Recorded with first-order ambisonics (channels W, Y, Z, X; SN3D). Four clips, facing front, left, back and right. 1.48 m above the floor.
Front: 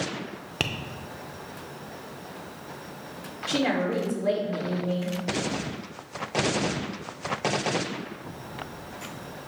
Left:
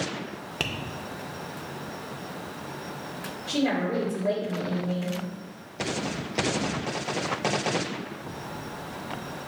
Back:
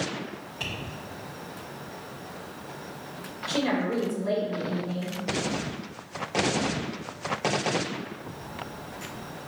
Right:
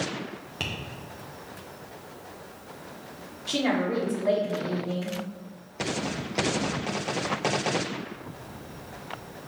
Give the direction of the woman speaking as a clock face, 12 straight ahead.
1 o'clock.